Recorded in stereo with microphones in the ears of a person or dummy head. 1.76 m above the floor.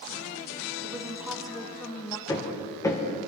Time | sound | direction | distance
0.8 | a woman speaking | 20° right (ahead or behind) | 1.5 m
2.3 | hammering | 20° left (ahead or behind) | 1.6 m